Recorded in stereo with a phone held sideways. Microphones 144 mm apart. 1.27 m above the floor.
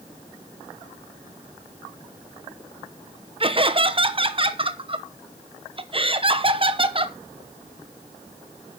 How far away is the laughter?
About 0.9 m.